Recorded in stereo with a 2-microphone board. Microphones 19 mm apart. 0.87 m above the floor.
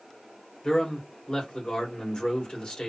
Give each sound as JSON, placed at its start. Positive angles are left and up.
{"t": 0.6, "sound": "a man speaking", "side_deg": 45, "distance_m": 2.5}